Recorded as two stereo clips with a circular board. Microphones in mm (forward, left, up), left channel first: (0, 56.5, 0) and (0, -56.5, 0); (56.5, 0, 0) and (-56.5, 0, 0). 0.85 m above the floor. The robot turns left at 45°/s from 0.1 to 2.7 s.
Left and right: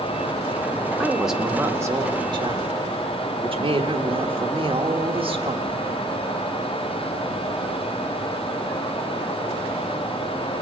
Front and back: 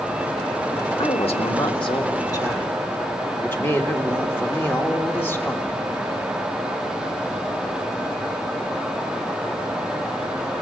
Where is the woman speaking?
10° left, 1.5 m; by 5.8 s 70° right, 1.5 m.